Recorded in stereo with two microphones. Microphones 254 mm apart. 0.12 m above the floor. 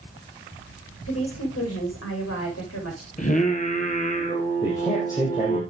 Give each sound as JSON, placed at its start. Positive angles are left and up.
{"t": 1.1, "sound": "a woman speaking", "side_deg": 70, "distance_m": 7.0}
{"t": 3.2, "sound": "singing", "side_deg": 30, "distance_m": 2.5}
{"t": 4.6, "sound": "a man speaking", "side_deg": 15, "distance_m": 4.0}